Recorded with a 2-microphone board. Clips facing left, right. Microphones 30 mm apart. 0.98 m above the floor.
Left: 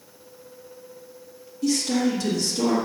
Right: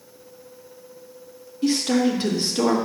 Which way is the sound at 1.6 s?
45° right (ahead or behind).